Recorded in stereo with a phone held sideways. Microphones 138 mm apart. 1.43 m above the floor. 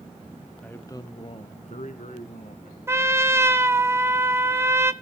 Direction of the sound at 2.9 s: 20° right (ahead or behind).